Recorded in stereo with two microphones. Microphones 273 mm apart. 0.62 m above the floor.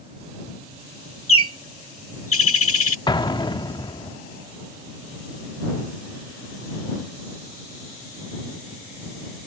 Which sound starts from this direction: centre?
An explosion, at 3.1 s.